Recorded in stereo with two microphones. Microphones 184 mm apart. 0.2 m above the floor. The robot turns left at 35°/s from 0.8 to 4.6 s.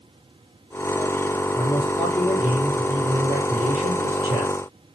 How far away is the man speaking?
About 5 m.